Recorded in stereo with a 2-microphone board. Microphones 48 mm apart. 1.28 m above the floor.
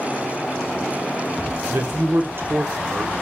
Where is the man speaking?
50° right (ahead or behind), 0.9 m.